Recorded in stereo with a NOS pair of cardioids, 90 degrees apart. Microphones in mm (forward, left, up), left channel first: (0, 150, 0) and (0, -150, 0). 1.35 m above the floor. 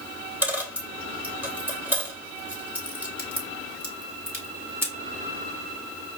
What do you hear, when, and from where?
0.4 s a dropped coin: 5° right, 3 m
3.2 s a crack: 10° right, 2.5 m